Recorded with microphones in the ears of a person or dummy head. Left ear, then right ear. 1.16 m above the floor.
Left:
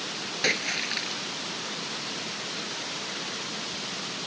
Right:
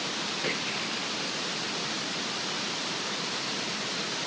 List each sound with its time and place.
0.4 s a splash: 55° left (ahead or behind)